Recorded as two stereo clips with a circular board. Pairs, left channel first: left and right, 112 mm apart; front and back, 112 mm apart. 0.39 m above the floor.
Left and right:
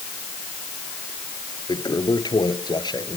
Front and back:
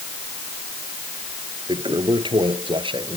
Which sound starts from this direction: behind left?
A toilet flushing, at 1.7 s.